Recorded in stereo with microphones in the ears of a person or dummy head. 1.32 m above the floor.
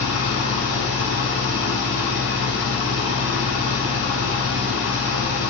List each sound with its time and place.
0.0 s an engine running: 10° right (ahead or behind), 5 m